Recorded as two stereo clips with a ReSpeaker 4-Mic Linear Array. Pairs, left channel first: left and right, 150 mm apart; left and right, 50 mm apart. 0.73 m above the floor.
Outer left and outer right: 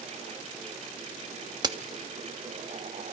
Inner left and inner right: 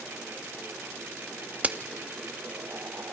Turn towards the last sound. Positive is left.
turn(degrees=-25)  # may be behind; listen again after turning